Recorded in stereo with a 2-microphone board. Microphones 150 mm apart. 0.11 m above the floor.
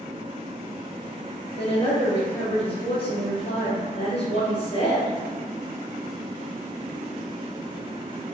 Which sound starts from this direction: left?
A woman speaking, at 1.6 s.